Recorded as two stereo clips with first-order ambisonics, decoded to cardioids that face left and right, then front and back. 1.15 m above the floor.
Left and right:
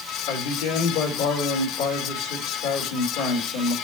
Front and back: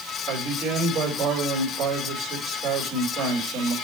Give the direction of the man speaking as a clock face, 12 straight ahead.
8 o'clock.